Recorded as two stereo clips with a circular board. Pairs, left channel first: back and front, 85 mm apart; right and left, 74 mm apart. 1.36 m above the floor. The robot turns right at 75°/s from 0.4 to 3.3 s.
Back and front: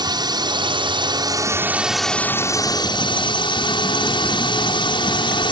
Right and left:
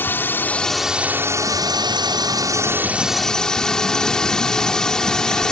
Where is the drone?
30° right; by 5.5 s 170° right.